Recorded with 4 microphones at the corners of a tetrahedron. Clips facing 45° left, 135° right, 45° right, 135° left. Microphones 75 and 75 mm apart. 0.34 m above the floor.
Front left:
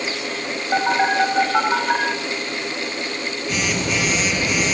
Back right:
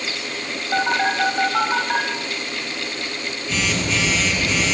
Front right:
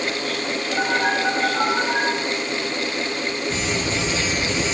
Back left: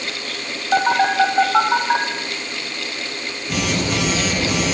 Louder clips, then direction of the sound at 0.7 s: Front left 2 dB, back left 6 dB; 120° left.